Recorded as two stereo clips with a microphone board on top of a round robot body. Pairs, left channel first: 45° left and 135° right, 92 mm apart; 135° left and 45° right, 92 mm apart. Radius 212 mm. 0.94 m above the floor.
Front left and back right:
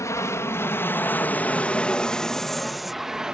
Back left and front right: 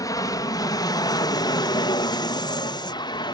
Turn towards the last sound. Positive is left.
turn(degrees=145)